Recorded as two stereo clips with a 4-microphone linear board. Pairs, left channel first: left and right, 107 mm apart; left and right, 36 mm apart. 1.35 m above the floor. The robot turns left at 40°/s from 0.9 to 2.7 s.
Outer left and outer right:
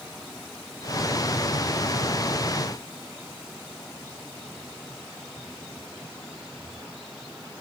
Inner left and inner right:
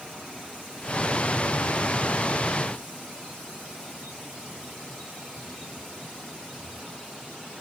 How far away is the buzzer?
I don't hear a buzzer.